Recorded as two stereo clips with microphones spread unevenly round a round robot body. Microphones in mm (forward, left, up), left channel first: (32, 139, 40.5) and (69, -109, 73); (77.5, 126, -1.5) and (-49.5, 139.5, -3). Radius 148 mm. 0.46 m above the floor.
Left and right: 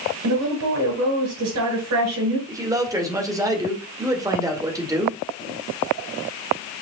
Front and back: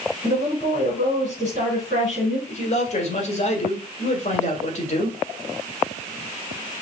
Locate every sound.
0.2 s a woman speaking: 65° right, 4 m
2.5 s a man speaking: straight ahead, 2 m